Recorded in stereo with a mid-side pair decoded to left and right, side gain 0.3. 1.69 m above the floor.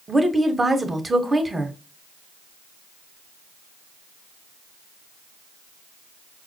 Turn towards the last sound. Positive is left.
turn(degrees=-30)